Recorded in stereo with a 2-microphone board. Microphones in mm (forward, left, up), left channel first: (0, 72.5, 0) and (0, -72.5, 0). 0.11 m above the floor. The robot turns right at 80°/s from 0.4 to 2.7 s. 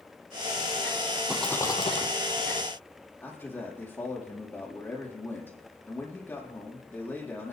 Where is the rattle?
5° right, 1.7 m; by 2.1 s 55° left, 1.7 m.